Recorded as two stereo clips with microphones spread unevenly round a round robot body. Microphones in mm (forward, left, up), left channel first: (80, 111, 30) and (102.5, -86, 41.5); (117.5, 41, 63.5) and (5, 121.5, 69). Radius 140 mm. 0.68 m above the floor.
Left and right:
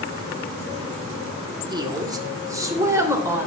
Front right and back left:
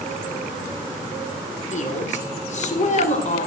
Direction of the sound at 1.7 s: 15° right.